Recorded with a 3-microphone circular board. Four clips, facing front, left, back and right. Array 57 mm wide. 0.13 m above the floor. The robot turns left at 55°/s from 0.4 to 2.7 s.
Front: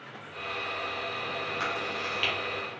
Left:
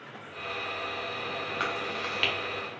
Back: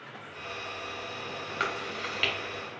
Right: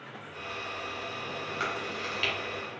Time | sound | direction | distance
1.6 | chewing | 135° left | 1.2 m